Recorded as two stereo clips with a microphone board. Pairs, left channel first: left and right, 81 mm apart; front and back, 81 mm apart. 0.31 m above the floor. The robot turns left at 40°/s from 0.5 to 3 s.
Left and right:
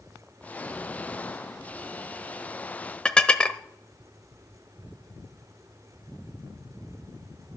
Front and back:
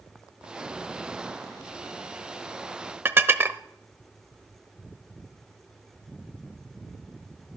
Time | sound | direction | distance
3.0 | dishes clattering | 155° left | 0.6 m